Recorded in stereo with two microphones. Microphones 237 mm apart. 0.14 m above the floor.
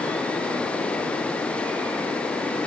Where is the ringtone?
No ringtone in this recording.